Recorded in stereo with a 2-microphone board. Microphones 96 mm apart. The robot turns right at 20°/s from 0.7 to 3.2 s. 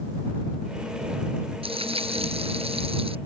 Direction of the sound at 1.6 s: 105° right.